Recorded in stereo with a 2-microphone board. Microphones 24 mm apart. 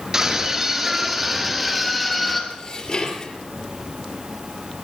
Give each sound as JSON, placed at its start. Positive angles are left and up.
{"t": 0.1, "sound": "a scream", "side_deg": -20, "distance_m": 5.0}
{"t": 2.5, "sound": "dishes clattering", "side_deg": 35, "distance_m": 3.0}